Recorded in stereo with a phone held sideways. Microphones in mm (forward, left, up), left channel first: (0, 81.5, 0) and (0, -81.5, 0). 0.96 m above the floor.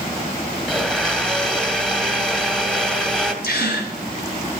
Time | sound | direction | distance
0.7 | a blender | 5° left (ahead or behind) | 1.7 m
3.4 | a gasp | 80° left | 3.5 m